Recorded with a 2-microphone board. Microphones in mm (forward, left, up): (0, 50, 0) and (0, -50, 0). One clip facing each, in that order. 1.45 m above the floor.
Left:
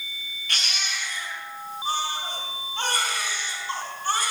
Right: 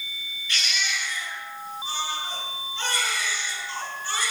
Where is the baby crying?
60° left (ahead or behind), 3.5 m.